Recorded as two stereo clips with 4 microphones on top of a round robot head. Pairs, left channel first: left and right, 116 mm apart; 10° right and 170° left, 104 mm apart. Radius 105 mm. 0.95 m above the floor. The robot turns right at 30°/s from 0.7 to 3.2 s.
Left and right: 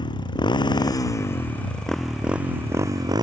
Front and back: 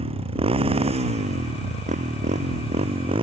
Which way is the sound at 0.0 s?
140° left.